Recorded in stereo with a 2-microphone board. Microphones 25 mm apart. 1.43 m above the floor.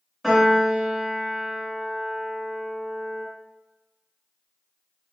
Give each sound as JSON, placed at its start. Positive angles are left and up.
{"t": 0.2, "sound": "a piano", "side_deg": 0, "distance_m": 1.3}